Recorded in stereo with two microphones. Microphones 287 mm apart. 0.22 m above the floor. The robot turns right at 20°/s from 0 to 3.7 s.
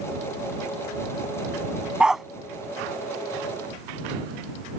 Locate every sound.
2.0 s a dog barking: 5° right (ahead or behind); by 2.2 s centre (ahead or behind)